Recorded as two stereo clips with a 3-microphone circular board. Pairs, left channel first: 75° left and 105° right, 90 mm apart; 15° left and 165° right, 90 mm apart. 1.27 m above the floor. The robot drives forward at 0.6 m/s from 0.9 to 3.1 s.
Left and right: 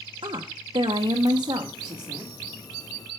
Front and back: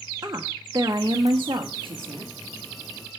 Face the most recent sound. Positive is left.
turn(degrees=-160)